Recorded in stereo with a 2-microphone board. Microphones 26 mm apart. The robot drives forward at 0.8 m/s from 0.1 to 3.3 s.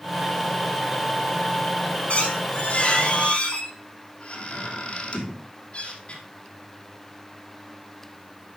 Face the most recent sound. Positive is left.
turn(degrees=45)  # may be behind; listen again after turning